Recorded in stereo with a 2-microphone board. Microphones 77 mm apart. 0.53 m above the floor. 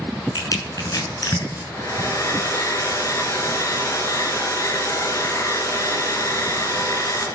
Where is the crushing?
55° left (ahead or behind), 6.5 m.